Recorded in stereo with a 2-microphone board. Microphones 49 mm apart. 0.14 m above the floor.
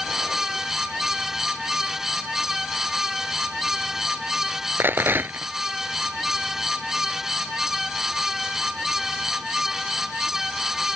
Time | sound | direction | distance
4.8 | a rattle | 45° right (ahead or behind) | ?